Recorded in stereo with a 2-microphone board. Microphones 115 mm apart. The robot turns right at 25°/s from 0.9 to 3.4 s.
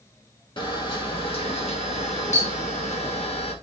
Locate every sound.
0.6 s a camera shutter: 45° left, 2 m; by 3.5 s 110° left, 2 m